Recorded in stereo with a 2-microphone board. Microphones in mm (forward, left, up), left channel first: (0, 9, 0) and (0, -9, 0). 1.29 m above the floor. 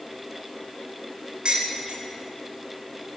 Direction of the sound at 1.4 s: 55° right (ahead or behind).